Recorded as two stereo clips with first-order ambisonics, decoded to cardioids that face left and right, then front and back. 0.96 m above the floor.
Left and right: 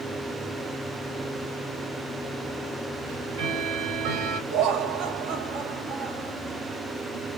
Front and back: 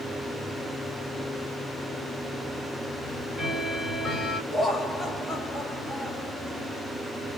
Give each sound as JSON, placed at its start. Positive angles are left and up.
{"t": 3.0, "sound": "ticking", "azimuth_deg": -95, "distance_m": 1.6}
{"t": 4.5, "sound": "laughter", "azimuth_deg": -90, "distance_m": 2.0}